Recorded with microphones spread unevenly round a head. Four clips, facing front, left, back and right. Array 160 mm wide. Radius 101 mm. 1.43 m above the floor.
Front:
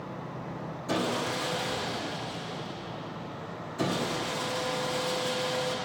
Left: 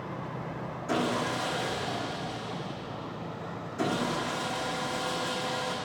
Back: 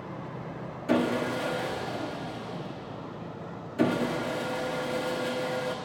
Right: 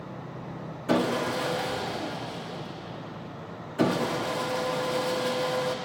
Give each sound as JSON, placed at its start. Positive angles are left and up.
{"t": 0.9, "sound": "sawing", "azimuth_deg": -130, "distance_m": 1.1}